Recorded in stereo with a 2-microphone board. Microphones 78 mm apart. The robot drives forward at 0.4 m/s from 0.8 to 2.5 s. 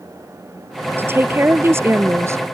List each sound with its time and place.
1.0 s a woman speaking: 30° right (ahead or behind); by 2.4 s 40° right (ahead or behind)